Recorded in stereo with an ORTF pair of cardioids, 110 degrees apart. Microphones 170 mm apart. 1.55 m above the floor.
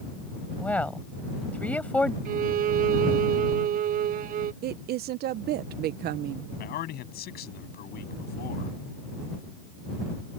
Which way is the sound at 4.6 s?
70° right.